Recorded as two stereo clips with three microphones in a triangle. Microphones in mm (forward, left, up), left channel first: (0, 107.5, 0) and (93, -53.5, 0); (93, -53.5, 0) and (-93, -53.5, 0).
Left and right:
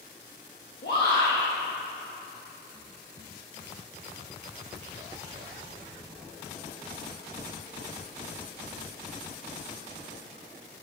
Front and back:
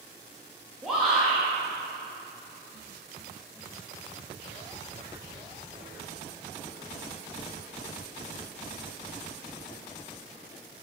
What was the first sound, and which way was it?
A shout, 90° left.